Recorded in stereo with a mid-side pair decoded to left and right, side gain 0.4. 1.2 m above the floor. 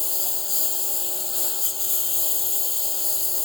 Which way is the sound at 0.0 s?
35° left.